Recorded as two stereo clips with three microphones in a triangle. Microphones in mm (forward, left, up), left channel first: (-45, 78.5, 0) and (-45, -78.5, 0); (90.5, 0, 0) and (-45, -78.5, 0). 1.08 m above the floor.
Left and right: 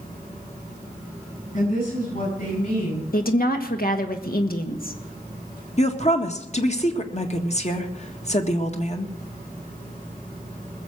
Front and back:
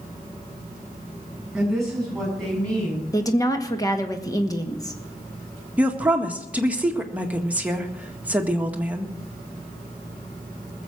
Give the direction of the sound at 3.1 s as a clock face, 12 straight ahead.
9 o'clock.